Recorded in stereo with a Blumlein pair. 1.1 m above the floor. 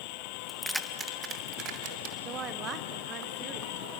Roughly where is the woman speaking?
Ahead right.